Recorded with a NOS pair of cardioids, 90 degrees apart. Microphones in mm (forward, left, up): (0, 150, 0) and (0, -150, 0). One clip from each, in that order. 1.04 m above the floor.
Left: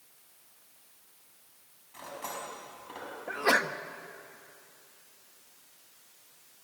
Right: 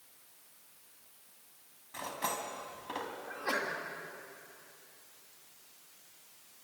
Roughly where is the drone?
I don't hear a drone.